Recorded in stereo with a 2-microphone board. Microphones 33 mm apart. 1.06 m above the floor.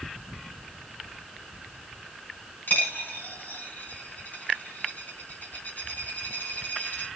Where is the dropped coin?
60° left (ahead or behind), 2 m.